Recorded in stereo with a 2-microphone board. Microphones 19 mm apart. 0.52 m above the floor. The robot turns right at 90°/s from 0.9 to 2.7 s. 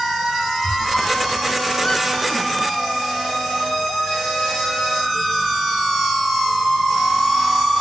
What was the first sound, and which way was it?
A squeak, 60° left (ahead or behind).